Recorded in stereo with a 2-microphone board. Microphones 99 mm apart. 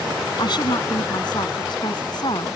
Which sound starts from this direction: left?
A woman speaking, at 0.4 s.